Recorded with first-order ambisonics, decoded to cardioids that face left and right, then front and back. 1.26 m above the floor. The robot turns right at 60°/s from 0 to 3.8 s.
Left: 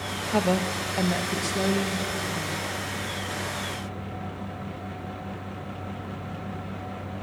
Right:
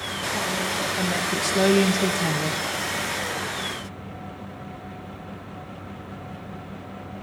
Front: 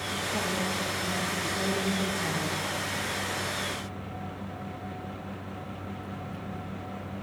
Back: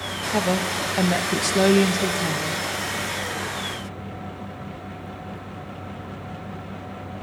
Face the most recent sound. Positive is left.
turn(degrees=-25)